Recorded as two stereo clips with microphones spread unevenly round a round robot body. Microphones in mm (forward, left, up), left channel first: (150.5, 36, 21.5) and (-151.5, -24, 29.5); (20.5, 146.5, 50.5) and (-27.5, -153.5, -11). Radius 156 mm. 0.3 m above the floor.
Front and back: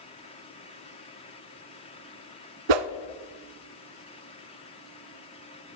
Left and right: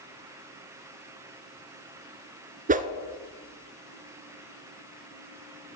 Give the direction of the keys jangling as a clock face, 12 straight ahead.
I don't hear keys jangling.